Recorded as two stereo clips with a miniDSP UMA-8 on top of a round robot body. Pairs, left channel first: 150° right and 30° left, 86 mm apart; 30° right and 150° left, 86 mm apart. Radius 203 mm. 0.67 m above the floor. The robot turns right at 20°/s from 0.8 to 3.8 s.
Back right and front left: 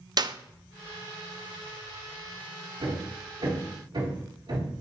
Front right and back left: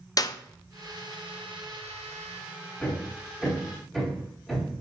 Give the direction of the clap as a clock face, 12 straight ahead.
12 o'clock.